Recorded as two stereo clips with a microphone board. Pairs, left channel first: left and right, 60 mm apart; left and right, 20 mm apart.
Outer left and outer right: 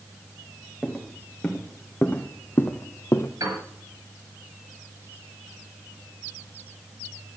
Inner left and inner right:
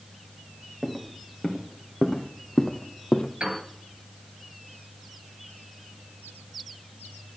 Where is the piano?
90° right, 6 m.